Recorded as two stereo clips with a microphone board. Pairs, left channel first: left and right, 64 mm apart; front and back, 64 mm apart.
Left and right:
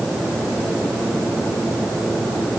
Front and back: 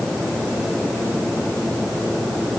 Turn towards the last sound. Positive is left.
No sound to turn to.